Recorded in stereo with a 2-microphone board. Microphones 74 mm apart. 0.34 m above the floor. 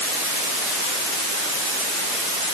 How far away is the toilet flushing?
I don't hear a toilet flushing.